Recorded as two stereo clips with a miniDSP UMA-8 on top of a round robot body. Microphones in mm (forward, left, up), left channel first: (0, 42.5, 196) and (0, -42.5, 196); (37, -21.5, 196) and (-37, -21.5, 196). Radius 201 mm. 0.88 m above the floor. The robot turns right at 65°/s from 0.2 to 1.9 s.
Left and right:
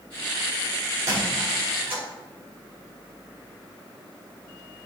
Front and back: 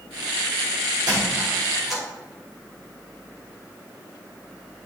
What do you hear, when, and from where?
1.1 s a squeak: 145° right, 2 m; by 2.0 s 90° right, 2 m